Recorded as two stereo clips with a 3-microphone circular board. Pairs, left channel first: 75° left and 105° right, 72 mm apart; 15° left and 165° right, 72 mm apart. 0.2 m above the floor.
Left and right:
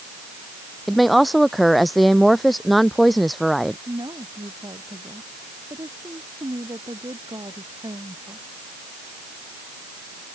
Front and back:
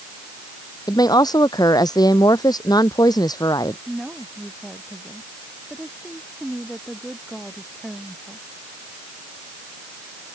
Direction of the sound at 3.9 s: 75° right.